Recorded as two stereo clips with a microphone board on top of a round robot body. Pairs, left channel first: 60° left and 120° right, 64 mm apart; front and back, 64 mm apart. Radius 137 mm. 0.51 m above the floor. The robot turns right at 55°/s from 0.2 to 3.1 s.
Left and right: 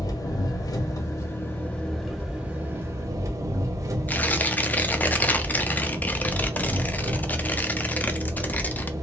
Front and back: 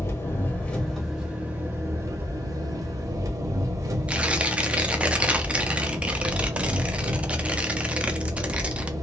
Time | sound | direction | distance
0.0 | an engine running | 45° left | 0.8 m
4.1 | tearing paper | 115° left | 0.6 m